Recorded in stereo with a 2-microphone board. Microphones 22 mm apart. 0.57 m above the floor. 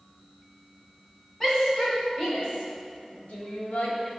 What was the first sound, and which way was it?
A shout, 15° left (ahead or behind).